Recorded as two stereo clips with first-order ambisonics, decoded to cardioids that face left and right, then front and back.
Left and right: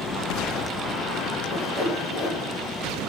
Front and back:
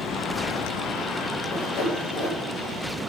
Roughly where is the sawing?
Ahead left.